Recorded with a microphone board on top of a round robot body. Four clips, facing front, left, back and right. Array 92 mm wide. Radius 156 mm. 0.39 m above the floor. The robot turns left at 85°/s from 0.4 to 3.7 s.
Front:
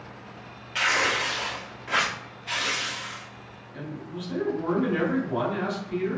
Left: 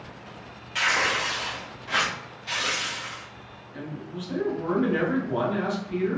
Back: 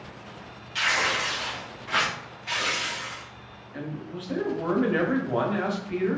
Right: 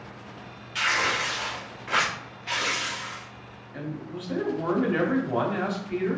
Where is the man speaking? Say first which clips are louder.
Right 1 dB, back 1 dB; 140° right, 1.2 m.